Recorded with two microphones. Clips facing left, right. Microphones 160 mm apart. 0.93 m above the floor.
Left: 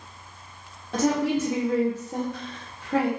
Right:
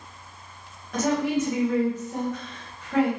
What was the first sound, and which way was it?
A woman speaking, 30° left (ahead or behind).